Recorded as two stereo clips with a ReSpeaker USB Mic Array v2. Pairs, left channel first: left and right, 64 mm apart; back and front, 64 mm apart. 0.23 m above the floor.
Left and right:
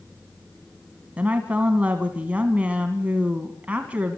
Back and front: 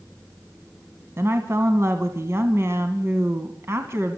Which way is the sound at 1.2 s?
25° right.